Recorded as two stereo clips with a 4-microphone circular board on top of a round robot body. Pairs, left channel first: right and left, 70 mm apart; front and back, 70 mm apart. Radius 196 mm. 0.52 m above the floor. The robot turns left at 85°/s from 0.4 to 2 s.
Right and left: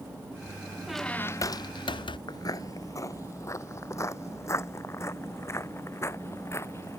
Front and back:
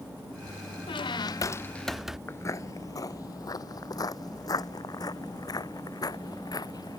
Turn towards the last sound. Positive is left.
turn(degrees=-35)